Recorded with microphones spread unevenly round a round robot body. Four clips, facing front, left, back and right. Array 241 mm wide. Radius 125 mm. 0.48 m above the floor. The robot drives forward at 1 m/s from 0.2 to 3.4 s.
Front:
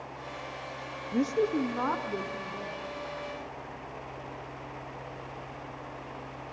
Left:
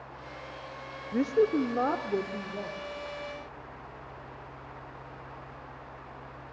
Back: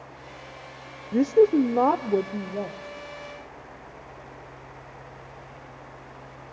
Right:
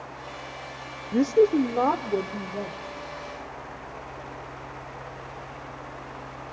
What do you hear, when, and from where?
1.1 s a woman speaking: 105° right, 0.7 m; by 2.8 s 170° right, 1.9 m